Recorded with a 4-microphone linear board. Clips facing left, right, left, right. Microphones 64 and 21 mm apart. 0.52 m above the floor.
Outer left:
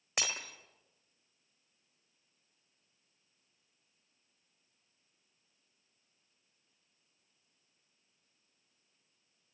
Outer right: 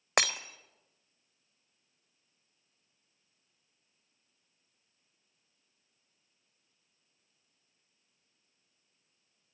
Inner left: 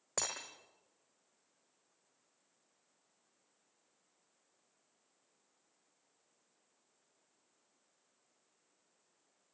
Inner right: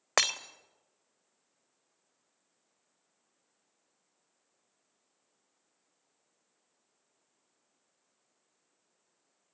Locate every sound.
0.2 s breaking glass: 70° right (ahead or behind), 1.4 m